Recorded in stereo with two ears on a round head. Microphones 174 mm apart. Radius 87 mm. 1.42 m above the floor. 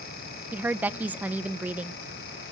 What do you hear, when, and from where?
0.5 s a woman speaking: 10° right (ahead or behind), 0.6 m